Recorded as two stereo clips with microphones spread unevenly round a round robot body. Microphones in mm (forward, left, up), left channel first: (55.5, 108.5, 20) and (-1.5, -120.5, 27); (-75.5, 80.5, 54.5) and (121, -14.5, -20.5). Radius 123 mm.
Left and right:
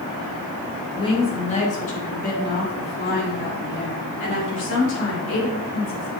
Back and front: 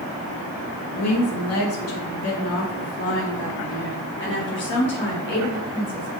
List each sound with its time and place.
0.9 s a woman speaking: 145° left, 1.6 m; by 6.2 s 110° left, 4 m